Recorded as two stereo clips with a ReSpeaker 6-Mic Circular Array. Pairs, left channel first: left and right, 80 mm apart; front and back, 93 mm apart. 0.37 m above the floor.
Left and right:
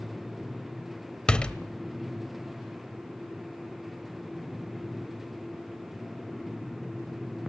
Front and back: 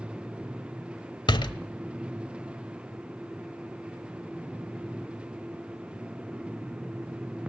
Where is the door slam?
15° left, 0.9 m.